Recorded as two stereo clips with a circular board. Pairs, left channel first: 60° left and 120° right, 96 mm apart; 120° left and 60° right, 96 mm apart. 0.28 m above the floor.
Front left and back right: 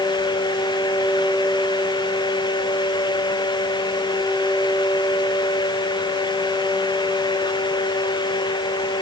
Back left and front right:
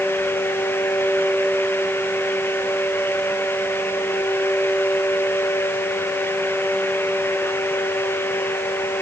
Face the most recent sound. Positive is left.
No sound to turn to.